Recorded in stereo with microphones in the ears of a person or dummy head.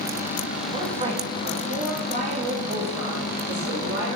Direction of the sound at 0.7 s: 30° right (ahead or behind).